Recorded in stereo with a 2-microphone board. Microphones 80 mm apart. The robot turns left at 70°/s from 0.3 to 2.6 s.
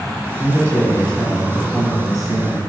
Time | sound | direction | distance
0.4 | a man speaking | 45° left | 1.8 m